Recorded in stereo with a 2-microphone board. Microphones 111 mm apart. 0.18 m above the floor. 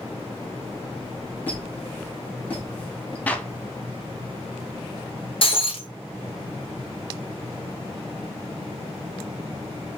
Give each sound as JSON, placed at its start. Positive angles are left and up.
{"t": 1.5, "sound": "a squeak", "side_deg": 15, "distance_m": 3.0}
{"t": 3.3, "sound": "a clap", "side_deg": 15, "distance_m": 0.8}
{"t": 5.4, "sound": "breaking glass", "side_deg": 55, "distance_m": 1.1}